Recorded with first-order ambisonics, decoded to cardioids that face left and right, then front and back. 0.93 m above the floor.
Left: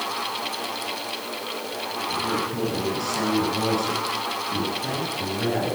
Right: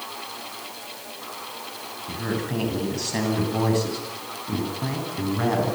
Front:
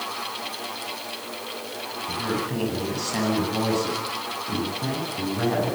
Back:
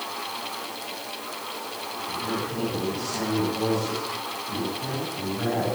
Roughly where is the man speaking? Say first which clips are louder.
Left 2 dB, front 3 dB; ahead right.